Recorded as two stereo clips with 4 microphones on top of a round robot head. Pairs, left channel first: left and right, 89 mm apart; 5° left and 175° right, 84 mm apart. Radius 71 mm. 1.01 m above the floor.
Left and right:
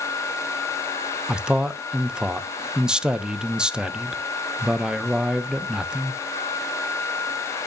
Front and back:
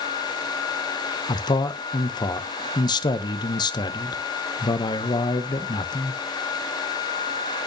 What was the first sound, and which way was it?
A man speaking, 10° right.